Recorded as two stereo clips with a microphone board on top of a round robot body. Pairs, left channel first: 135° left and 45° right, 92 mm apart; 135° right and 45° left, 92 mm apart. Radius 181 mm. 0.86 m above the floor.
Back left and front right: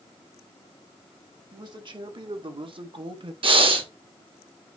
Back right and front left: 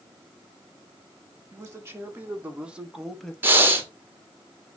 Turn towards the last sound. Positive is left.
turn(degrees=-25)